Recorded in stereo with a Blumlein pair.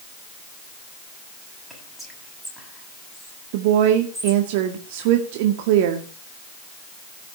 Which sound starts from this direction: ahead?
Whispering, at 1.7 s.